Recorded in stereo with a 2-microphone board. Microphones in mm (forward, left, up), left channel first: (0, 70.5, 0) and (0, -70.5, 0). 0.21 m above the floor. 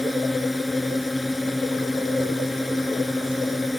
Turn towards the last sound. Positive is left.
turn(degrees=0)  # may be behind; listen again after turning